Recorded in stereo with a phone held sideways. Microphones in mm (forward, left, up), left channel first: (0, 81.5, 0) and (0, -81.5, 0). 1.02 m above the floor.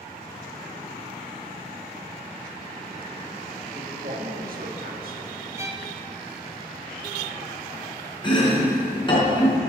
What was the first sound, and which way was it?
A man speaking, 65° right (ahead or behind).